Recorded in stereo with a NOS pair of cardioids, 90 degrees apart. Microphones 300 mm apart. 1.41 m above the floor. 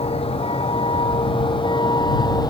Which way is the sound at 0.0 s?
20° left.